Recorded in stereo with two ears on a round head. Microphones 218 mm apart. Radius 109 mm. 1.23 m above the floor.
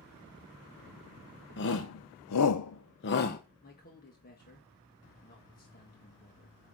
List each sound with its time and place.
1.6 s a shout: 50° left (ahead or behind), 0.9 m; by 3.4 s 35° left (ahead or behind), 1.0 m
3.6 s a man speaking: 35° left (ahead or behind), 1.6 m